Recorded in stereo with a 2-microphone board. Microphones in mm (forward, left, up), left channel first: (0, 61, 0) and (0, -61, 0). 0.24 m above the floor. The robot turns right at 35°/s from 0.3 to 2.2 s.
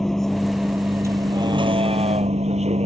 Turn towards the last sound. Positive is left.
turn(degrees=-115)